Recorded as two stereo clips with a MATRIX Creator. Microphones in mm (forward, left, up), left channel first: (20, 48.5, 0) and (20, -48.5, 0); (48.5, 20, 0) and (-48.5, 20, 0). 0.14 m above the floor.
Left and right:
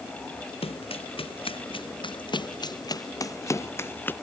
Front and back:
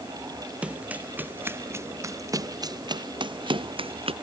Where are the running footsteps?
100° left; by 4.1 s 160° left.